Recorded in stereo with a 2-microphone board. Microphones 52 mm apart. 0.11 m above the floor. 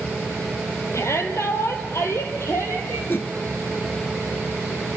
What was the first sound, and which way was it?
A shout, 60° left (ahead or behind).